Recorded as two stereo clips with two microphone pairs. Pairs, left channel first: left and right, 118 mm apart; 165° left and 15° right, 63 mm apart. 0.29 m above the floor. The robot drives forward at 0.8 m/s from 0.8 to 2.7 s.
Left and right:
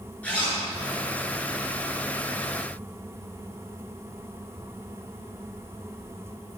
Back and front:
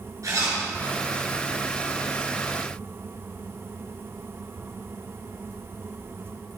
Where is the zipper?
10° left, 4 m.